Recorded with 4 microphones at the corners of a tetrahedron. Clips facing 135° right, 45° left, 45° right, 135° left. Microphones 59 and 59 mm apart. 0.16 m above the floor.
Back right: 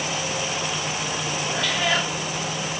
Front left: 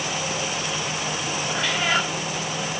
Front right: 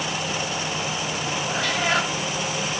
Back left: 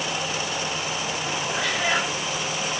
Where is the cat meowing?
20° right, 1.5 m.